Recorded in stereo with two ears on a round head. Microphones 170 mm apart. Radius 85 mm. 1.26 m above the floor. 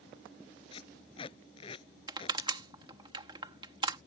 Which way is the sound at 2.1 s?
25° right (ahead or behind).